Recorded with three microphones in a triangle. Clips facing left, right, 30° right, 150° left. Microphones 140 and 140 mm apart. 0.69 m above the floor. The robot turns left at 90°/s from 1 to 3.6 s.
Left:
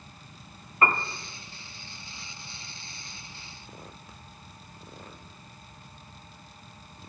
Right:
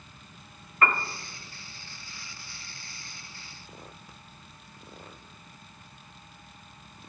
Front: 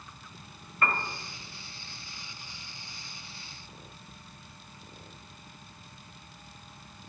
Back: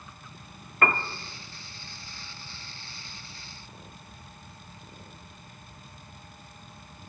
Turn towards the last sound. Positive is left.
turn(degrees=-80)